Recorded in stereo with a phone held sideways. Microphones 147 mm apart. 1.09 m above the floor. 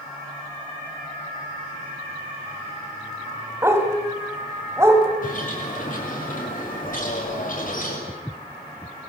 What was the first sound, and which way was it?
A dog barking, 15° right (ahead or behind).